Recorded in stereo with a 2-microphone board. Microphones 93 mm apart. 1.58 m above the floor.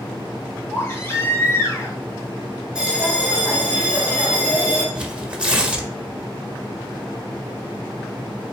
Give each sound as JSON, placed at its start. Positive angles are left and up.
{"t": 0.7, "sound": "a baby crying", "side_deg": 30, "distance_m": 3.5}
{"t": 2.8, "sound": "a bell", "side_deg": -10, "distance_m": 4.5}
{"t": 5.0, "sound": "tearing paper", "side_deg": -15, "distance_m": 1.8}